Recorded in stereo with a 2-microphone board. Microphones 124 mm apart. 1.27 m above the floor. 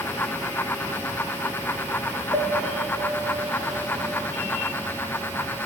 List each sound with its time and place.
2.3 s a piano: 5° left (ahead or behind), 5 m